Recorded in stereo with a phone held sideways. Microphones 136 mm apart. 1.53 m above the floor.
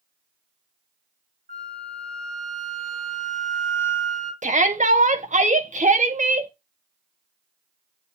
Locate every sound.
1.5 s a flute: 75° right (ahead or behind), 1.4 m
4.4 s a shout: 65° right (ahead or behind), 1.4 m